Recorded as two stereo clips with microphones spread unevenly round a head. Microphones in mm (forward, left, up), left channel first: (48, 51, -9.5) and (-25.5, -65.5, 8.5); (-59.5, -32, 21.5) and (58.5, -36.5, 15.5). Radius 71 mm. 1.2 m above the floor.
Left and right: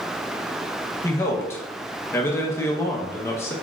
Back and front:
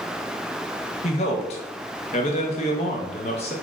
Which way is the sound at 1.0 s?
130° left.